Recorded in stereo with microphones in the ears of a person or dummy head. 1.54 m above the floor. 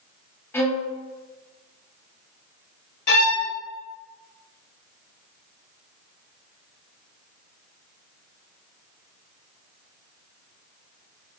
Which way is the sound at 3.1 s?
50° left (ahead or behind).